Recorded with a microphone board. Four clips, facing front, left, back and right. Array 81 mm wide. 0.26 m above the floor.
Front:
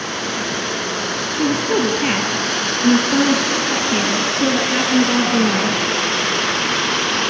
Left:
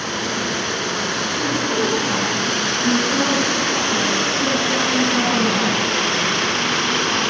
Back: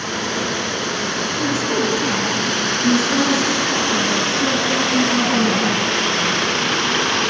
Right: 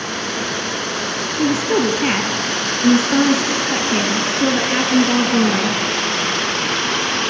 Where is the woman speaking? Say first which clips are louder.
Right 6 dB, front 4 dB; 70° right, 3 m.